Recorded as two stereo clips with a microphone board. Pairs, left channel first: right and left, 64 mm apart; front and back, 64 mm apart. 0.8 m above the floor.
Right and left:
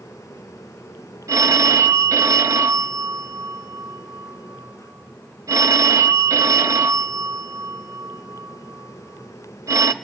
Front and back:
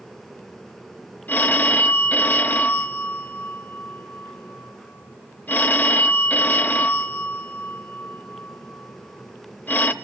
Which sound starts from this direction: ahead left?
A phone ringing, at 1.3 s.